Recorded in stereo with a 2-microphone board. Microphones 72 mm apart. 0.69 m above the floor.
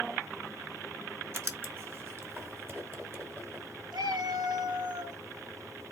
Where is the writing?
35° right (ahead or behind), 1.0 m.